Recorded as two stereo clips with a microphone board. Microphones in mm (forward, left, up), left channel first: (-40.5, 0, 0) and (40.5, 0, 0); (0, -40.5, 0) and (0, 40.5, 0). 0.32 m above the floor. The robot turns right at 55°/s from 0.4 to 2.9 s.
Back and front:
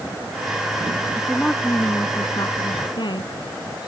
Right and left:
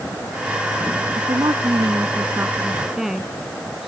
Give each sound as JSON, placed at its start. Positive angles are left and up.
{"t": 1.1, "sound": "a woman speaking", "azimuth_deg": 80}